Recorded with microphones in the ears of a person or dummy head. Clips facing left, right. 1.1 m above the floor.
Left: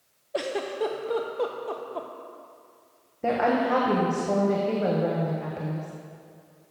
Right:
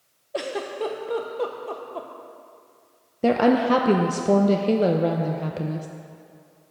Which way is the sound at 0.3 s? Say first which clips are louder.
Even; centre (ahead or behind).